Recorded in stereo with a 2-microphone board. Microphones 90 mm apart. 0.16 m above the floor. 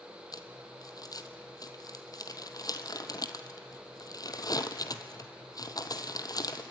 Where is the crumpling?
45° left (ahead or behind), 1.1 m.